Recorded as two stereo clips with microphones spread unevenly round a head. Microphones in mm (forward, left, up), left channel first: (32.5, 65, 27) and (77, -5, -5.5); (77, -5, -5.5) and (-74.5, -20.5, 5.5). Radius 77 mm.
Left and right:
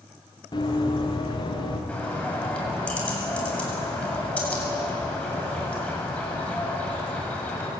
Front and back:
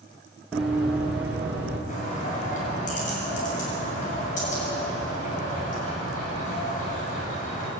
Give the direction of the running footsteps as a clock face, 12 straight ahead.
9 o'clock.